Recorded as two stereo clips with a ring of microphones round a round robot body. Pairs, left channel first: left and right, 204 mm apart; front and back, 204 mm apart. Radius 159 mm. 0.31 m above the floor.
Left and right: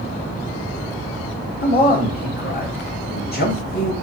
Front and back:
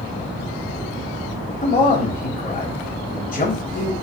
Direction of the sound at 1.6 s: 50° left.